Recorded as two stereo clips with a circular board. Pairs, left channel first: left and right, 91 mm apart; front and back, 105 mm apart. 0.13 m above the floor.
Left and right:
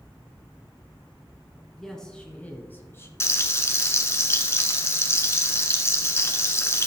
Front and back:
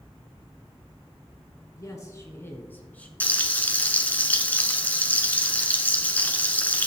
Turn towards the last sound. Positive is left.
turn(degrees=60)